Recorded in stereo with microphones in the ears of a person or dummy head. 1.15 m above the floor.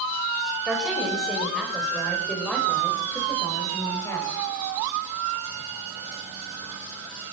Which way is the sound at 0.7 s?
5° right (ahead or behind).